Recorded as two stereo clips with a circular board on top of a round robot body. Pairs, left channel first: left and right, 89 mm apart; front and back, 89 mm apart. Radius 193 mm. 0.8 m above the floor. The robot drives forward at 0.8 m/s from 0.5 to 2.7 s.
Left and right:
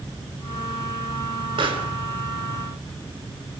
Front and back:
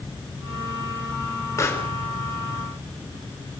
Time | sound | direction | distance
1.6 | a pop | 60° right | 4 m